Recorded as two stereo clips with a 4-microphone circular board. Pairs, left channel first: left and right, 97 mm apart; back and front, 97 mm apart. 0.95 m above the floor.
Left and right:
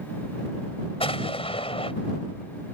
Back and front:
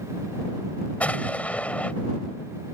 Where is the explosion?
105° left.